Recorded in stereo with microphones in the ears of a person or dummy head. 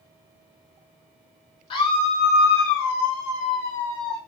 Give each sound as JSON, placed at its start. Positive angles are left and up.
{"t": 1.7, "sound": "a scream", "side_deg": 30, "distance_m": 0.9}